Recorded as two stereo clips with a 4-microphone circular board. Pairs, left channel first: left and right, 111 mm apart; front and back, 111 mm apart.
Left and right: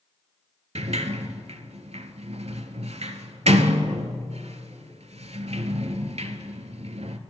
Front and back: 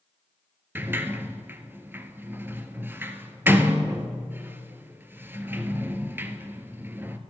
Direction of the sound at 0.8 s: 110° right.